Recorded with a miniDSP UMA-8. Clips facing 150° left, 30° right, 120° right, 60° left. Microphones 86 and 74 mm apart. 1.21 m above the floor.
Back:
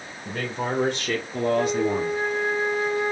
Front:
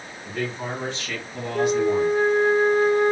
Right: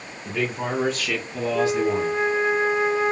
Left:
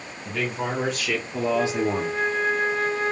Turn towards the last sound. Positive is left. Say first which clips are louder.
# front 6 dB, right 5 dB
turn(degrees=-50)